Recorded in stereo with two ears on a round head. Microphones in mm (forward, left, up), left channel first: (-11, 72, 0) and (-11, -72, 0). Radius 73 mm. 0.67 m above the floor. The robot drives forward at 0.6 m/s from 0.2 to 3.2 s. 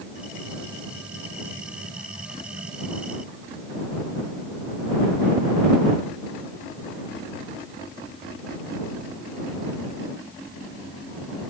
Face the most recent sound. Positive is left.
No sound to turn to.